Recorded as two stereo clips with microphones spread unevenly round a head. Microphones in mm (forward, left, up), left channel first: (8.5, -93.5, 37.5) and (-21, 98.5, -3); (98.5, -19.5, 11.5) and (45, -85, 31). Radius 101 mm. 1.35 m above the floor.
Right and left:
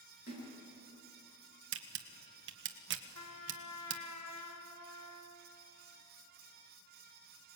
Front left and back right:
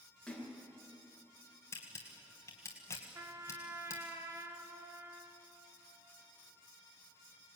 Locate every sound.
0.3 s a splash: 35° right, 7.5 m
1.7 s a camera shutter: 115° left, 1.4 m
3.1 s a trumpet: 75° right, 2.5 m